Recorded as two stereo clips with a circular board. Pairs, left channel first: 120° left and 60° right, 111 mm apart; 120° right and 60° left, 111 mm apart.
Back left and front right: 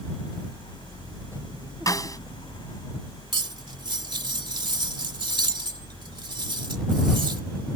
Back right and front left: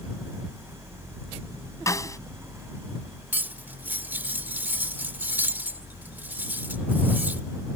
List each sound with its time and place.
1.9 s a snare drum: straight behind
3.3 s cutlery clinking: 15° right